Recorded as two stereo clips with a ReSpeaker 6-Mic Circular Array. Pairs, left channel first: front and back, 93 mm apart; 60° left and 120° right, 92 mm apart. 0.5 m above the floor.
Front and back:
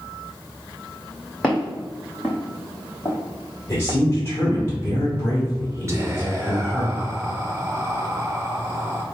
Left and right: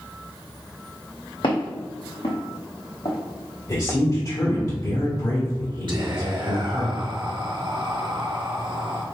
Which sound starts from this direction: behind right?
Whispering, at 5.9 s.